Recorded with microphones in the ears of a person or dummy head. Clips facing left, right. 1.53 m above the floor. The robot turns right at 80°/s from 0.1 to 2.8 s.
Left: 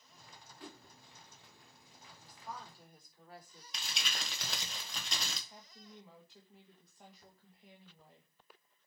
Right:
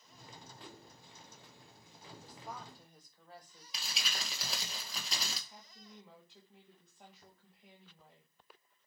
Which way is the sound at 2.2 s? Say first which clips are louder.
Even; 35° right.